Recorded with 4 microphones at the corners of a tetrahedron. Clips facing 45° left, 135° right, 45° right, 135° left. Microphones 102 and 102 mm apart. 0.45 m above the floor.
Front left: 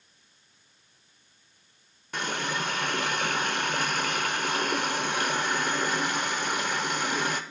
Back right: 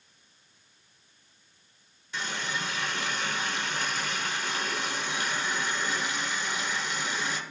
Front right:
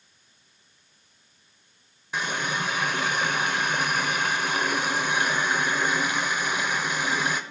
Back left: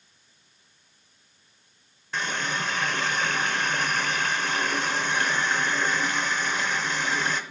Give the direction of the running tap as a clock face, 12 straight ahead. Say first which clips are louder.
Front left 3 dB, front right 1 dB; 11 o'clock.